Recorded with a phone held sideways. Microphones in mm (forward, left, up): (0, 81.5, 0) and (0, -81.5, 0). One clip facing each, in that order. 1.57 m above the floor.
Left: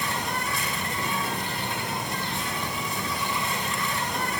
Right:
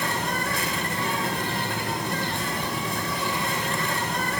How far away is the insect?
About 4 m.